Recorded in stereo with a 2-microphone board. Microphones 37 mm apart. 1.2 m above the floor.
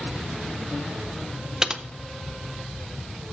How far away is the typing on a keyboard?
About 0.5 m.